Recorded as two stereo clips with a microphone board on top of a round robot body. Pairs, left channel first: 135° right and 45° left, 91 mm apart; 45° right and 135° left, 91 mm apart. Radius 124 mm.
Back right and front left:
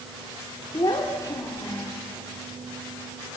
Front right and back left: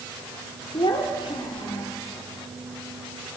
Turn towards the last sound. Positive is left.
turn(degrees=-80)